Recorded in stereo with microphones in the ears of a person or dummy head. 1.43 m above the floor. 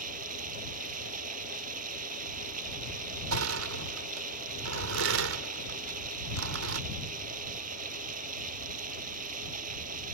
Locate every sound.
0.0 s running water: 45° right (ahead or behind)
3.3 s crushing: 80° right